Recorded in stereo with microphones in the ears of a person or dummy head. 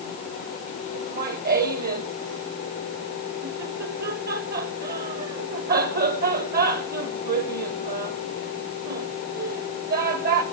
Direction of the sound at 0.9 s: 45° right (ahead or behind).